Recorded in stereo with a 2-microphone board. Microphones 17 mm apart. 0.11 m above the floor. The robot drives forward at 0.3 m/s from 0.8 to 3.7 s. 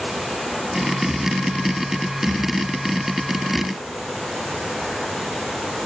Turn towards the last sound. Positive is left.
No sound to turn to.